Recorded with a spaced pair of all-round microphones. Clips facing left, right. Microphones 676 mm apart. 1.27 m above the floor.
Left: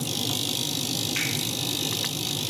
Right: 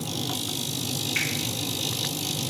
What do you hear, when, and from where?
1.1 s a finger snap: 70° right (ahead or behind), 3 m